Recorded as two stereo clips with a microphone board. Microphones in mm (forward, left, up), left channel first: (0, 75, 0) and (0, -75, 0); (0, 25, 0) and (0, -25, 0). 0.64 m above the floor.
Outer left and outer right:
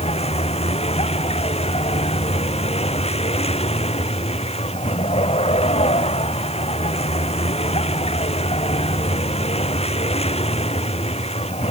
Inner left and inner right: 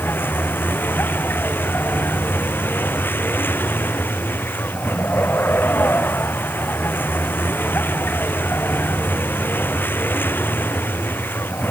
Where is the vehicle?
45° left (ahead or behind).